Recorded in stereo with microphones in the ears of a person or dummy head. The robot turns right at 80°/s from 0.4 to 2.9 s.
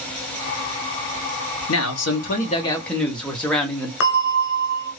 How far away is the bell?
About 0.8 m.